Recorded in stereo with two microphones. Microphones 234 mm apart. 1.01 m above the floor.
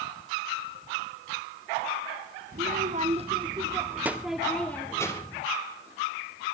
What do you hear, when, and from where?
2.5 s a child speaking: 40° right (ahead or behind), 1.6 m; by 5.4 s 20° left (ahead or behind), 1.9 m